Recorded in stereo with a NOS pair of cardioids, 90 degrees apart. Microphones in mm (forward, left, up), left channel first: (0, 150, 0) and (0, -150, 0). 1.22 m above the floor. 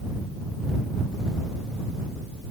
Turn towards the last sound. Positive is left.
No sound to turn to.